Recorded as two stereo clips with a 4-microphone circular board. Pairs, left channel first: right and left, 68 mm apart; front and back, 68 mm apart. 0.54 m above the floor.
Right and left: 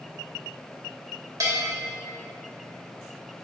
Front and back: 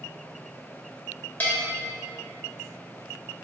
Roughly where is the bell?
Ahead left.